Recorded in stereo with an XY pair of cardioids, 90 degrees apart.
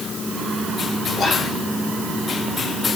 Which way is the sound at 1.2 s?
65° left.